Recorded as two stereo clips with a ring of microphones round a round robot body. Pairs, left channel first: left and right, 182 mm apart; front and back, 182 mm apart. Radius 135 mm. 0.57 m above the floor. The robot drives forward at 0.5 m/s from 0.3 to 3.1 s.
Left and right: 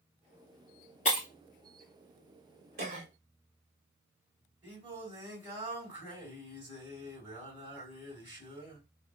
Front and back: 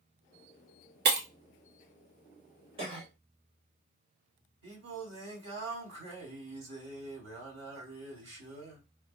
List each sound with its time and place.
1.1 s breaking glass: 155° left, 1.3 m; by 1.3 s 160° left, 1.4 m
2.8 s a cough: 120° right, 1.3 m; by 3.1 s 125° right, 1.4 m
4.6 s singing: 165° right, 3 m